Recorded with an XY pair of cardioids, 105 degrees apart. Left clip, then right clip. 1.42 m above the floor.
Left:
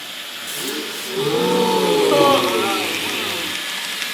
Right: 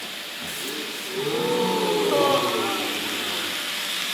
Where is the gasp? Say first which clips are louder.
Left 6 dB; 45° left, 2.5 m.